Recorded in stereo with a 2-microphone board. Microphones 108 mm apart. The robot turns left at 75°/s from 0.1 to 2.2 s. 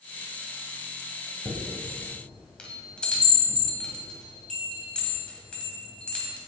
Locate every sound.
1.4 s a chime: 30° right (ahead or behind), 1.8 m; by 6.4 s 10° left (ahead or behind), 1.8 m